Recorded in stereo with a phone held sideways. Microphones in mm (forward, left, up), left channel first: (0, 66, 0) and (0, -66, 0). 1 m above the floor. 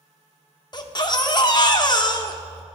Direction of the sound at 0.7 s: 35° left (ahead or behind).